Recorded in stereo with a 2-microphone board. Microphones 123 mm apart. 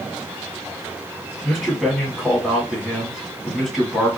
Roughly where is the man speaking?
Centre.